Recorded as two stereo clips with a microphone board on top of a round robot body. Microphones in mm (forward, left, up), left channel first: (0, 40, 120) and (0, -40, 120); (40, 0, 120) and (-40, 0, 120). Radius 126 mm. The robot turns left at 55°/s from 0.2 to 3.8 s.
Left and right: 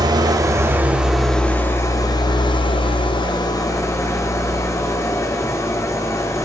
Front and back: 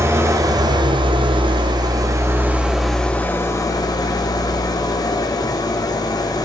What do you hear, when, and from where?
0.0 s an engine running: 125° right, 1.3 m; by 6.5 s 40° left, 1.3 m